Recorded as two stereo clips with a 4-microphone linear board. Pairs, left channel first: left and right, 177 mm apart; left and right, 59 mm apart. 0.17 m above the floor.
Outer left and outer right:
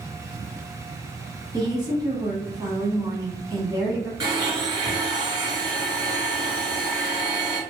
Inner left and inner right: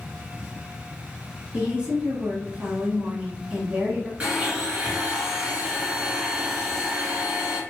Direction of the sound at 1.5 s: 20° right (ahead or behind).